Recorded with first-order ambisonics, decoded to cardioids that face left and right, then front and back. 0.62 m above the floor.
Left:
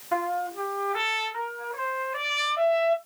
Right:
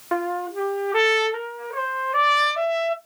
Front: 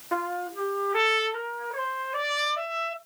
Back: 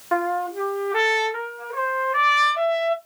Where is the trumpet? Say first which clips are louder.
Right 2 dB, back 6 dB; 110° right, 1.4 m.